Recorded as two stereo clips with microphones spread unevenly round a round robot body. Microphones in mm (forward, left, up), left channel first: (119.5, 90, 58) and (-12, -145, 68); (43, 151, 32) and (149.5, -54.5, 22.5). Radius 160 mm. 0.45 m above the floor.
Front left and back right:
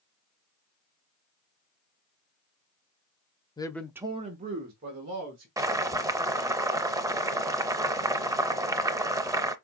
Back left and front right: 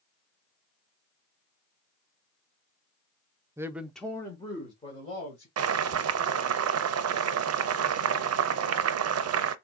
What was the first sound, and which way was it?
A man speaking, 5° left.